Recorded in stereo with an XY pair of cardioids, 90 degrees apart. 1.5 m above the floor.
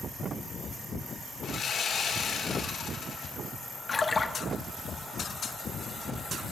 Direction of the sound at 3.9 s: 30° left.